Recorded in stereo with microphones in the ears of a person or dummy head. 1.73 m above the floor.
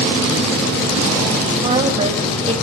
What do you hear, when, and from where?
1.6 s a woman speaking: 30° right (ahead or behind), 1.9 m